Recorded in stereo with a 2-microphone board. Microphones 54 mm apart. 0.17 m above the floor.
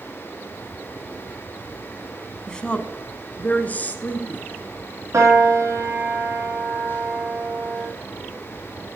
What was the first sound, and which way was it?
A woman speaking, 15° left (ahead or behind).